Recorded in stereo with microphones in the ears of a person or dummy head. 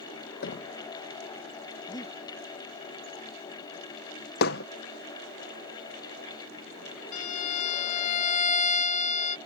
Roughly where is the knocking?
Left.